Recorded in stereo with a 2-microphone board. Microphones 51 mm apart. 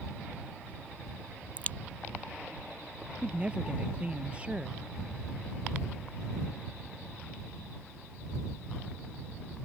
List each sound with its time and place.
1.6 s a crack: 30° left (ahead or behind)
3.2 s a woman speaking: 25° right (ahead or behind)